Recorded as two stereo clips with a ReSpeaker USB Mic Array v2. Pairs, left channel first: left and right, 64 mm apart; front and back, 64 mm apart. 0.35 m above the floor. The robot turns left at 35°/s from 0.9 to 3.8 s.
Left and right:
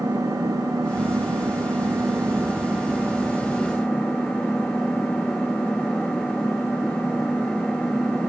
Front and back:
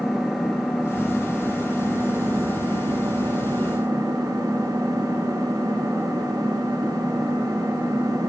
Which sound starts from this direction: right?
An engine running, at 0.0 s.